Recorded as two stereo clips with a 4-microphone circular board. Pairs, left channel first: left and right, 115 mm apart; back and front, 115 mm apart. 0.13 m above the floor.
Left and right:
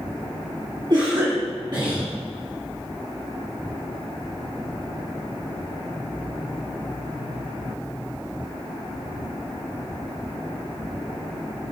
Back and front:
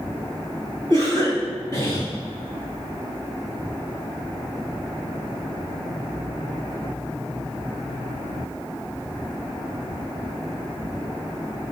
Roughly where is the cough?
Behind right.